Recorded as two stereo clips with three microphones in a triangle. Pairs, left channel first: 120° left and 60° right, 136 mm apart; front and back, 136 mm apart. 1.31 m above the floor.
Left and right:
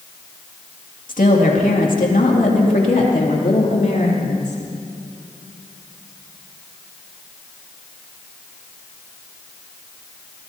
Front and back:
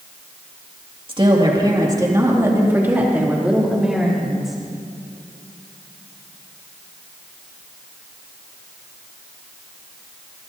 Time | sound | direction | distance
1.1 | a woman speaking | 130° left | 2.5 m